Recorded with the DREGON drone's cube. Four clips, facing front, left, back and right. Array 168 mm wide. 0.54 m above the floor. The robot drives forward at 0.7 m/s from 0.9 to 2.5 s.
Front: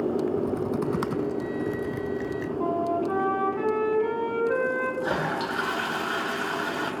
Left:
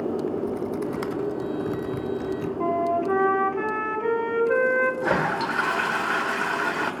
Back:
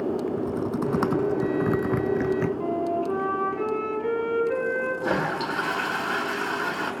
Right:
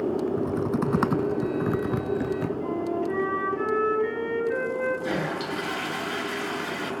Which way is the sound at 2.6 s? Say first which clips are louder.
Left 4 dB, even; 75° left.